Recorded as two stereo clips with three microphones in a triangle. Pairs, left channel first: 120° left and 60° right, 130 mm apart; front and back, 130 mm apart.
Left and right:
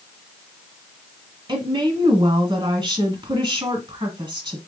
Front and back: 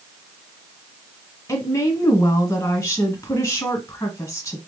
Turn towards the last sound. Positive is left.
turn(degrees=-50)